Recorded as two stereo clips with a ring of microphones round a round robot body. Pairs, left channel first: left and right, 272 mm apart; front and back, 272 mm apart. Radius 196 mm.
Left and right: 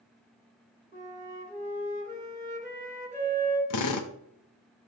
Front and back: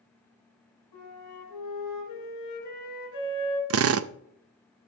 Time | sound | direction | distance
0.9 | a flute | 25° right | 3 m
3.7 | a drill | 135° left | 0.5 m